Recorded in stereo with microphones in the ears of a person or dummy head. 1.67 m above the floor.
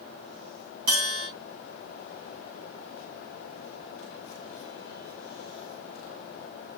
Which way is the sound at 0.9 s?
65° right (ahead or behind).